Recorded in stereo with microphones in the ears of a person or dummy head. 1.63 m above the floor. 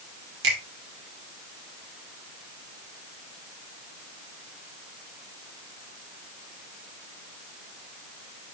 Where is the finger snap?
60° right (ahead or behind), 2 m.